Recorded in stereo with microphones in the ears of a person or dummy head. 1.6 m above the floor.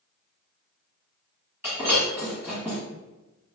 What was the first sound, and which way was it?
Breaking glass, 10° right (ahead or behind).